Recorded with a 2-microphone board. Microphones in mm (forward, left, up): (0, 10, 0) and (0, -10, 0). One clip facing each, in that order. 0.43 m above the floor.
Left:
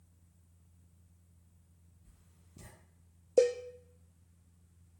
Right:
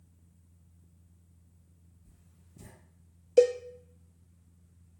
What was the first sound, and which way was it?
Writing, 45° left (ahead or behind).